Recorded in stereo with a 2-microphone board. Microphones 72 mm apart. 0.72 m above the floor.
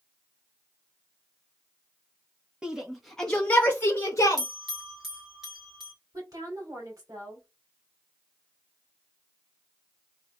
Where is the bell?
5° right (ahead or behind), 2 m.